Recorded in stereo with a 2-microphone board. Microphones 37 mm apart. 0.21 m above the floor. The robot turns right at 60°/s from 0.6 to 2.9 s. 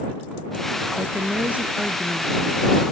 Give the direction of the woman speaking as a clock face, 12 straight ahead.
3 o'clock.